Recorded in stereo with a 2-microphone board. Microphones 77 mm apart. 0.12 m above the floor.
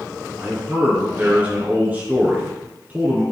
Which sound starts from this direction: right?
A man speaking, at 0.4 s.